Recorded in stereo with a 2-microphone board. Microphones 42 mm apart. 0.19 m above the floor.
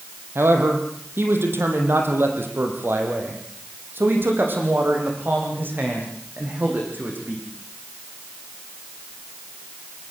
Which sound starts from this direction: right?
A man speaking, at 0.3 s.